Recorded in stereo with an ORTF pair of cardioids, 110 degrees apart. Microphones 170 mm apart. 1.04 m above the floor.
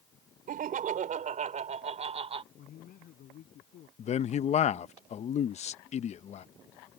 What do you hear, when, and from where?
0.5 s laughter: 55° right; by 2.4 s 35° right
2.5 s a man speaking: 60° left
4.0 s a man speaking: 45° left